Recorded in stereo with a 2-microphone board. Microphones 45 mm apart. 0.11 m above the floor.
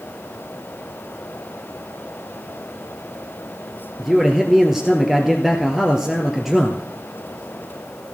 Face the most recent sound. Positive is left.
turn(degrees=-5)  # may be behind; listen again after turning